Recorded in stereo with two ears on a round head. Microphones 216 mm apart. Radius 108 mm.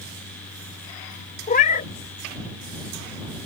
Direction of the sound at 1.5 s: 35° left (ahead or behind).